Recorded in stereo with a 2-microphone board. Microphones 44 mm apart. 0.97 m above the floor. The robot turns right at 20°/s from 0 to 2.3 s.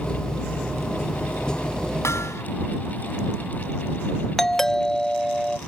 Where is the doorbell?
10° left (ahead or behind).